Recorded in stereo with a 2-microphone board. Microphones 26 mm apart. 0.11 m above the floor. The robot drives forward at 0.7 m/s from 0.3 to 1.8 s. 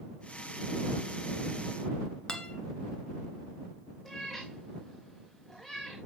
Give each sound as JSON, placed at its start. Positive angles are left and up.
{"t": 2.3, "sound": "a guitar", "side_deg": 35, "distance_m": 1.7}
{"t": 4.0, "sound": "a cat meowing", "side_deg": 15, "distance_m": 4.5}